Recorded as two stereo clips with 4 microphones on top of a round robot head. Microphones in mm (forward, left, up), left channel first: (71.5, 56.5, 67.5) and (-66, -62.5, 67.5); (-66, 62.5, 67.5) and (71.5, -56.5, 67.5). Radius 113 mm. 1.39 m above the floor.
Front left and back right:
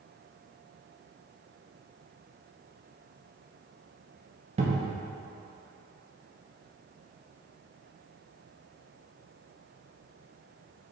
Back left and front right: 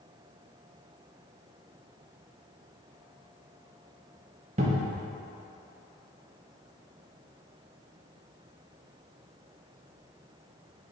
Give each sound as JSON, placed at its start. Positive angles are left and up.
{"t": 4.6, "sound": "a cupboard door", "azimuth_deg": -90, "distance_m": 0.7}